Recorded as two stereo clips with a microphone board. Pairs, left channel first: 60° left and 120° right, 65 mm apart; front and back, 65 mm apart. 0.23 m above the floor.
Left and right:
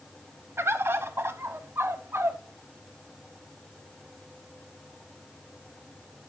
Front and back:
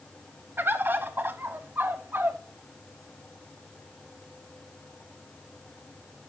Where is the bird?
140° right, 0.6 m.